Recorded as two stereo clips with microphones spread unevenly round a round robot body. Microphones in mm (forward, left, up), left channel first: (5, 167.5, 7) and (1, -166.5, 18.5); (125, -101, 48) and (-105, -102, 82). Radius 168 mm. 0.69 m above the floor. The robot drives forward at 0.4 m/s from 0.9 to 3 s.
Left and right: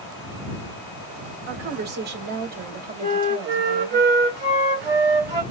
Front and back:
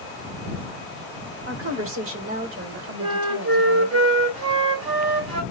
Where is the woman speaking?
150° right, 2 m; by 4.0 s 155° right, 2.5 m.